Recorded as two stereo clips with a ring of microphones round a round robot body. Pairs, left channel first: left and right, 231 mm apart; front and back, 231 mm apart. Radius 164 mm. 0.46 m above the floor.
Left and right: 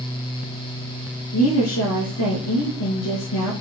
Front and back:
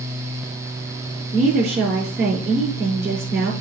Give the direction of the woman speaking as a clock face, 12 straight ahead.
7 o'clock.